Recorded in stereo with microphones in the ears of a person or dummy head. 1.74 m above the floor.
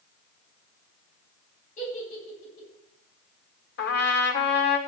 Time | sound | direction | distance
1.8 | a giggle | 45° left (ahead or behind) | 9.5 m
3.8 | a trumpet | 60° left (ahead or behind) | 1.6 m